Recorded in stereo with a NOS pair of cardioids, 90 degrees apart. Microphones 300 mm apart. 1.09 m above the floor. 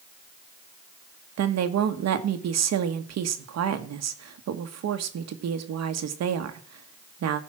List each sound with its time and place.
1.4 s a woman speaking: 60° right, 1.5 m